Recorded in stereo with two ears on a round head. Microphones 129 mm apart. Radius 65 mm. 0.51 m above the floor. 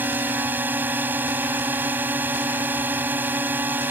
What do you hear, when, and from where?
0.0 s a drone: 15° right (ahead or behind)